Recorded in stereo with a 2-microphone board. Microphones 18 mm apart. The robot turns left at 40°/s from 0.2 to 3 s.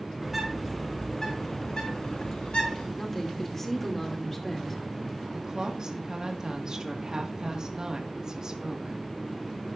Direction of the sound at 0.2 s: 165° right.